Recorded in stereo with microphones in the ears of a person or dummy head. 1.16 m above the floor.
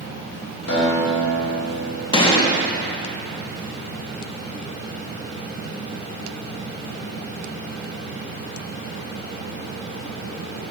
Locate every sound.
0.7 s a guitar: 85° left, 2.5 m
2.1 s a gunshot: 25° left (ahead or behind), 1.0 m